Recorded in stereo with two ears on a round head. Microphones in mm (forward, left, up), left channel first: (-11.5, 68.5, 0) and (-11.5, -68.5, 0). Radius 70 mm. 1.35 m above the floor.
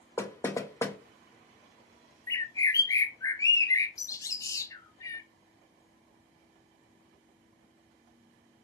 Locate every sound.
0.2 s knocking: 20° left (ahead or behind), 0.9 m
2.3 s a bird: 20° left (ahead or behind), 0.8 m